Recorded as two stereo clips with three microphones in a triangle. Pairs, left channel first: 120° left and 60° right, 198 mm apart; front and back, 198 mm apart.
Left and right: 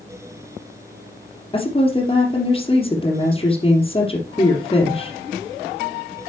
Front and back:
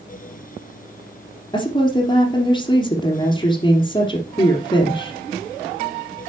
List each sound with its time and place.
1.5 s a woman speaking: 65° left, 2.5 m